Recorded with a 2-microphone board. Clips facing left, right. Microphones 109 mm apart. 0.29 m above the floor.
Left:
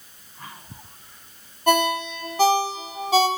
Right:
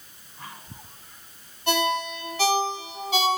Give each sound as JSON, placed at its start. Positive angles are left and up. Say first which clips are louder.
{"t": 1.7, "sound": "a ringtone", "louder": "left 4 dB", "side_deg": 40, "distance_m": 0.6}